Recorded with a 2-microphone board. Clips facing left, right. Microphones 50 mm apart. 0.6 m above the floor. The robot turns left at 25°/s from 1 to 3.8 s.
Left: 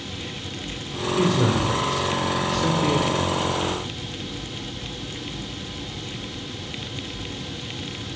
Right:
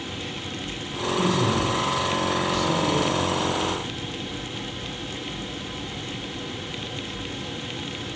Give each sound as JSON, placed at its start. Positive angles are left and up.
{"t": 1.2, "sound": "a man speaking", "side_deg": 60, "distance_m": 2.5}